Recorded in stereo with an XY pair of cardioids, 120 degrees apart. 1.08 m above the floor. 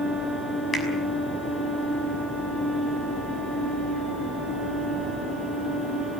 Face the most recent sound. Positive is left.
turn(degrees=25)